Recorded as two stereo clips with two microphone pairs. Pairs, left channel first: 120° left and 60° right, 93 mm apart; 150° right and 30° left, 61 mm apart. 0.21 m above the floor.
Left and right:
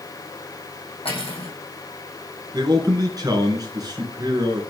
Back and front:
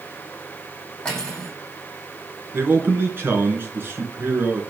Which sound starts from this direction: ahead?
A man speaking, at 2.5 s.